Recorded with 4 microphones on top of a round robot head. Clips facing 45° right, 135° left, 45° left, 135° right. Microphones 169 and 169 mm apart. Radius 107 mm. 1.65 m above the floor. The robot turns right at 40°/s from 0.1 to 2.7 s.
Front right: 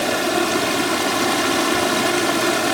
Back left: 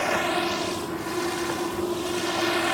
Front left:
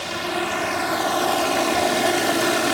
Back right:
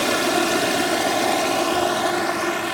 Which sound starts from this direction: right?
Running water, at 0.0 s.